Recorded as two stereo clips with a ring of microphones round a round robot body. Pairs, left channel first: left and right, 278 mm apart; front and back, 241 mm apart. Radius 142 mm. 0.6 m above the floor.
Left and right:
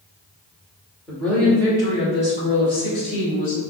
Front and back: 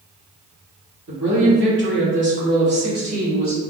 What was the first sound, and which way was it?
A woman speaking, straight behind.